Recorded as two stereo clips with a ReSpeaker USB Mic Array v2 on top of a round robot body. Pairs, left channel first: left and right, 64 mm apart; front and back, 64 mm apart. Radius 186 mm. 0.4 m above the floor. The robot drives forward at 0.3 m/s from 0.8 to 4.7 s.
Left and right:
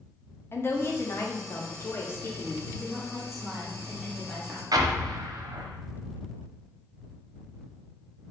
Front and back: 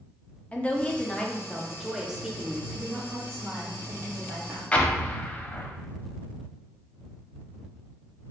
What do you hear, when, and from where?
0.5 s a woman speaking: 60° left, 0.9 m; by 2.6 s 120° left, 0.9 m
2.7 s a woman speaking: 175° right, 1.2 m
4.7 s an explosion: 75° right, 0.6 m